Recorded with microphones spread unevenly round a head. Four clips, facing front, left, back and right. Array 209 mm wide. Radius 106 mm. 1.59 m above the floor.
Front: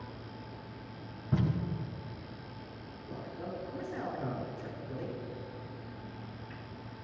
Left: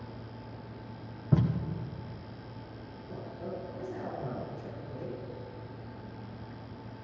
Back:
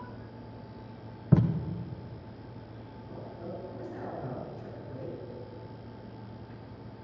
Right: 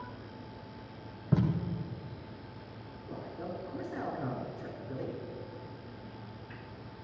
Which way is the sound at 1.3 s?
170° left.